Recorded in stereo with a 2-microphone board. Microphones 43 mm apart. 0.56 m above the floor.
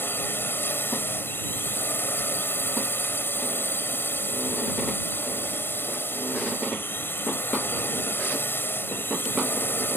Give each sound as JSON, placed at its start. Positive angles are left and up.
{"t": 0.0, "sound": "a drone", "side_deg": 60}